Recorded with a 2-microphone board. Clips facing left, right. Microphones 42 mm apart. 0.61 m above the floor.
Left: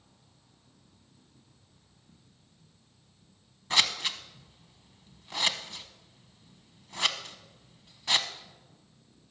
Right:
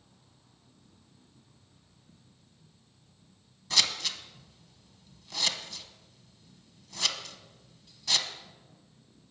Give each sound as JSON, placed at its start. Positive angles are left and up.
{"t": 3.7, "sound": "scissors", "side_deg": 30, "distance_m": 1.0}